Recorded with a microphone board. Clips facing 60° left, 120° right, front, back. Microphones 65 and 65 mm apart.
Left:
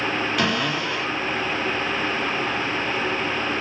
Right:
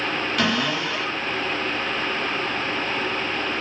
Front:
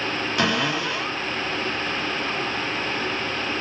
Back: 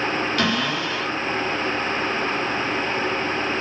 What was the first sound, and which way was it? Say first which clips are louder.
A cupboard door: even, even; 25° right.